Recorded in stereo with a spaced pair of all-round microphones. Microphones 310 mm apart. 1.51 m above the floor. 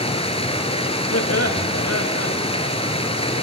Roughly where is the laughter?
Left.